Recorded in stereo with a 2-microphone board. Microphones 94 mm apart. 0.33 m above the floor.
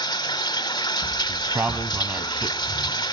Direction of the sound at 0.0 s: 50° left (ahead or behind).